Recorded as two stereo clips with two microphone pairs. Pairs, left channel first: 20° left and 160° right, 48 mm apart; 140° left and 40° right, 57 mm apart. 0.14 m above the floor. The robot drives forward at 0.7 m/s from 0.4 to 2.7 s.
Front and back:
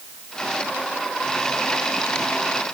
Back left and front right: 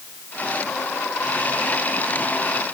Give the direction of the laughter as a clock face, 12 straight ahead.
No laughter in this recording.